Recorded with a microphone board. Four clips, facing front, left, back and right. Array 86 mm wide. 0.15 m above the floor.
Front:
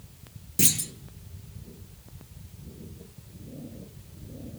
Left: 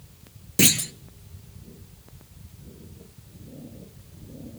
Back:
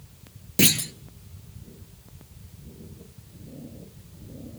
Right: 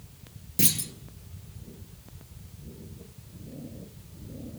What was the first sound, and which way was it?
A clunk, 130° left.